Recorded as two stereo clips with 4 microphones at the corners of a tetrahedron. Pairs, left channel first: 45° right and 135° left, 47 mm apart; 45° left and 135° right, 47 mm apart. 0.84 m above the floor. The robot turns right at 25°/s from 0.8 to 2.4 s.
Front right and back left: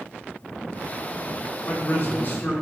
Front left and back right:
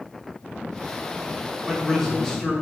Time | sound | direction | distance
1.6 | a man speaking | 40° right | 0.8 m